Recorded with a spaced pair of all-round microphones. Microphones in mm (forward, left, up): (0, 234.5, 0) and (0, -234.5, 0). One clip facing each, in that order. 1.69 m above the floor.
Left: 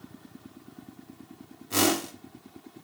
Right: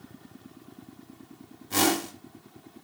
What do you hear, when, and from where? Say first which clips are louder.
1.7 s a whoosh: even; 5° right (ahead or behind), 1.8 m